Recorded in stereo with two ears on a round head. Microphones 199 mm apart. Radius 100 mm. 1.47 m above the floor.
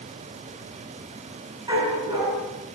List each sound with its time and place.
1.7 s a dog barking: 20° right (ahead or behind), 7.5 m